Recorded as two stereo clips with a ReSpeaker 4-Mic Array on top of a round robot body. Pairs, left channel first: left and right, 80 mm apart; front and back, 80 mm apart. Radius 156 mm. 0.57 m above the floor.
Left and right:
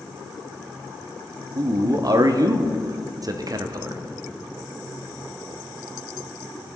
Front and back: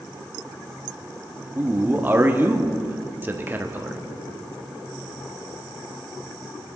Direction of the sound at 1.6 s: 120° right.